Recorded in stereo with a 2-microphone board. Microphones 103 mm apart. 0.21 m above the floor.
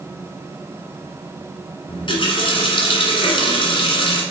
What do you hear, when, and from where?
1.9 s a running tap: 55° left (ahead or behind), 1.7 m